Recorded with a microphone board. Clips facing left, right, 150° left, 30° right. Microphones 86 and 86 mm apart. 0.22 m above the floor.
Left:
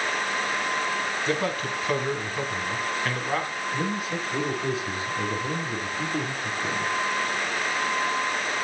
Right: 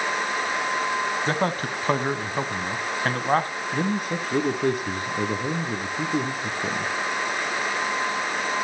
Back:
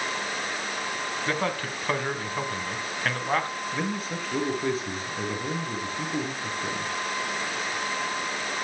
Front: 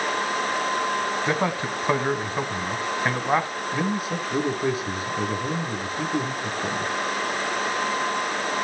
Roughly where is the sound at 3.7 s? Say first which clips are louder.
Right 4 dB, front 6 dB; behind right.